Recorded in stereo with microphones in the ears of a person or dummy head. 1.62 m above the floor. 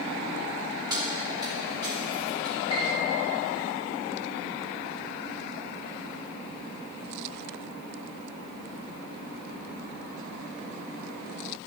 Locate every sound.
0.9 s keys jangling: 15° right (ahead or behind), 2.5 m; by 2.6 s 20° right (ahead or behind), 4.5 m
2.7 s a piano: 35° left (ahead or behind), 3 m